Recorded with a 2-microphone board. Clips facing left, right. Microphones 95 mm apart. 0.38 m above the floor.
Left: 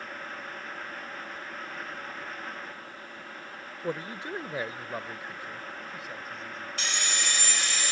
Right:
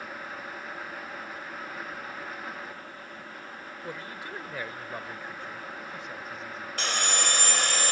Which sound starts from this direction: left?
A man speaking, at 3.8 s.